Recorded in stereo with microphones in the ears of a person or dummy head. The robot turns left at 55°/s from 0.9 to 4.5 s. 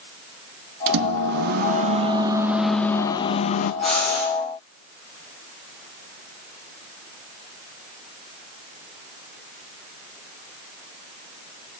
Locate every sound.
0.9 s a microwave: 85° right, 0.9 m; by 3.7 s 120° left, 0.9 m
3.8 s breathing: 5° left (ahead or behind), 9 m; by 4.3 s 30° left (ahead or behind), 9 m